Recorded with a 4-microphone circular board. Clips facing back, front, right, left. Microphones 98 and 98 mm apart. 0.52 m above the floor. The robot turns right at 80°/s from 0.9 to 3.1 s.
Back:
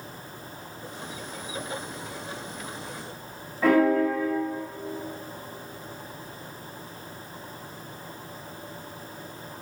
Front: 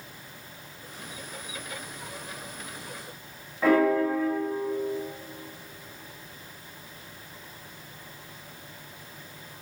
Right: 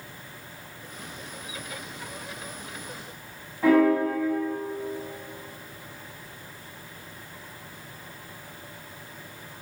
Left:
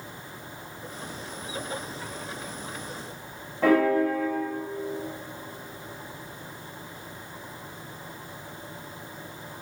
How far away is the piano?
About 2.5 m.